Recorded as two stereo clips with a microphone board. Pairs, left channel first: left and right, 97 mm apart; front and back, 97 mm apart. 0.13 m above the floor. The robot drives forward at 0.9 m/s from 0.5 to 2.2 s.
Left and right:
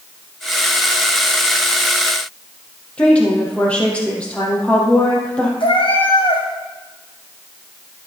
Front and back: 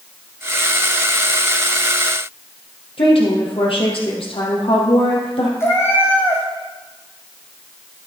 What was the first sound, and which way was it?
A woman speaking, 10° left.